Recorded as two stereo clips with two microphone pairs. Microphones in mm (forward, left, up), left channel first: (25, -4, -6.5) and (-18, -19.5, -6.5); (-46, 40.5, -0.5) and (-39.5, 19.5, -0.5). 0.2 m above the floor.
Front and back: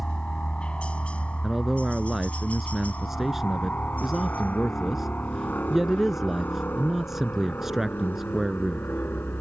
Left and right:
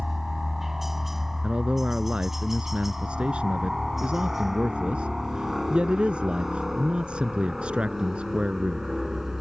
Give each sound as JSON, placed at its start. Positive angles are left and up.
{"t": 0.0, "sound": "a helicopter", "azimuth_deg": -10}
{"t": 1.4, "sound": "a man speaking", "azimuth_deg": -75}